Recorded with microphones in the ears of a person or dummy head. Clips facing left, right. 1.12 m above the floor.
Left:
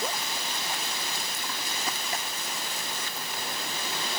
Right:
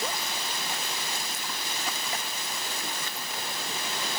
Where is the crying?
I don't hear crying.